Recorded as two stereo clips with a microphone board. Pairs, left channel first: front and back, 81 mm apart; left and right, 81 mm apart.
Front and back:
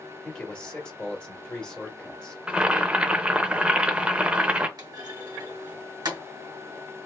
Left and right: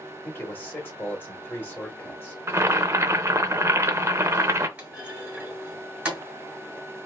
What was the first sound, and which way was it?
A man speaking, 65° left.